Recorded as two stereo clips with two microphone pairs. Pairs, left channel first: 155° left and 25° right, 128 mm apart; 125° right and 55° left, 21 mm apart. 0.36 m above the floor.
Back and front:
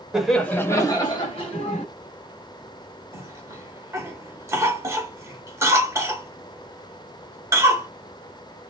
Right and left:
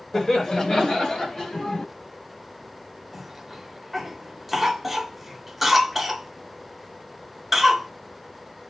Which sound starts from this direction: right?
Laughter, at 0.1 s.